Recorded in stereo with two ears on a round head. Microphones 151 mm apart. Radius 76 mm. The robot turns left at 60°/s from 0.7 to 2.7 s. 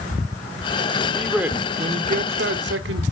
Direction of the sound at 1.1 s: 10° left.